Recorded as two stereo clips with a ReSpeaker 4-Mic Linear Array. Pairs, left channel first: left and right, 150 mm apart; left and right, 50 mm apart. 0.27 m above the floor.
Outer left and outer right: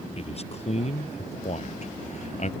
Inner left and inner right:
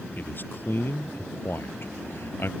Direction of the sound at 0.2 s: 45° left (ahead or behind).